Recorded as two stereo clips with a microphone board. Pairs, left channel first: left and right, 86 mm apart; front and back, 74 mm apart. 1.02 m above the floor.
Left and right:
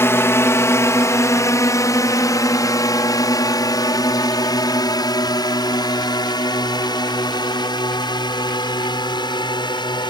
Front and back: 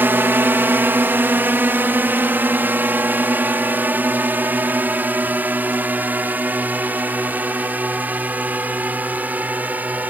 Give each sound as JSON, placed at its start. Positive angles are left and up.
{"t": 0.0, "sound": "a drone", "azimuth_deg": 135}